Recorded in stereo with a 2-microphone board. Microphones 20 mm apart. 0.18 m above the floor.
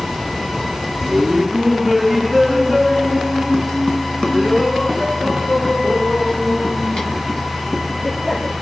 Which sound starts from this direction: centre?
Laughter, at 1.0 s.